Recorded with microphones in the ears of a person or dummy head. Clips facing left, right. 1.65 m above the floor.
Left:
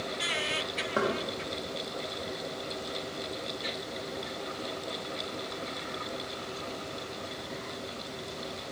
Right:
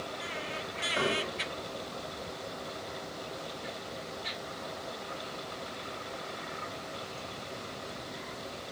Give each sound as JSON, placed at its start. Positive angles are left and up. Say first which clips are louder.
{"t": 1.0, "sound": "knocking", "louder": "left 3 dB", "side_deg": 55, "distance_m": 0.8}